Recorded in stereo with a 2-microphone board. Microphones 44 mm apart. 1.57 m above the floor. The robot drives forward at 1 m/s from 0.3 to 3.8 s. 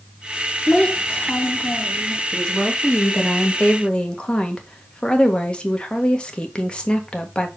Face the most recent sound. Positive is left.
turn(degrees=25)  # may be behind; listen again after turning